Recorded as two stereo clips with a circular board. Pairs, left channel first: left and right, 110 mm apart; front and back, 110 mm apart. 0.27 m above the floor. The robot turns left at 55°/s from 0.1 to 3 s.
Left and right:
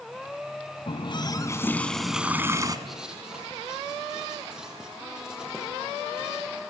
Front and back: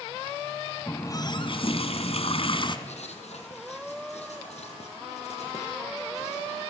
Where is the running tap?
65° left, 1.7 m; by 2.8 s 40° right, 1.7 m.